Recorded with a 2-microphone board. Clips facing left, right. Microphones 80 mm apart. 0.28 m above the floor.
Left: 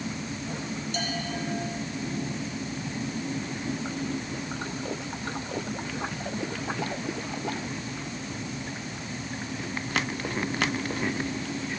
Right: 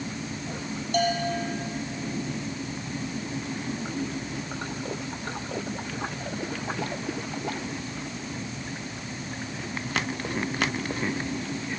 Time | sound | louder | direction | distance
0.9 | a bell | right 10 dB | 55° right (ahead or behind) | 5.5 m